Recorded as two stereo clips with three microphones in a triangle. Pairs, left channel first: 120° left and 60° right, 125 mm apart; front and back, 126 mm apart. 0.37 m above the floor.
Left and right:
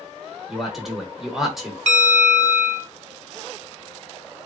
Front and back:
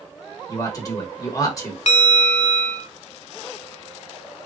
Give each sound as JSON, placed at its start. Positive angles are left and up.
{"t": 0.5, "sound": "a man speaking", "azimuth_deg": 25, "distance_m": 0.9}
{"t": 1.9, "sound": "a bell", "azimuth_deg": -35, "distance_m": 0.5}